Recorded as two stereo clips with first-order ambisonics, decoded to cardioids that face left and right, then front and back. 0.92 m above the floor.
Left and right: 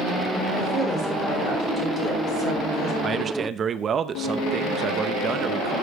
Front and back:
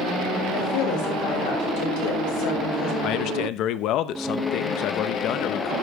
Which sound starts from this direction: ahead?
A woman speaking, at 0.5 s.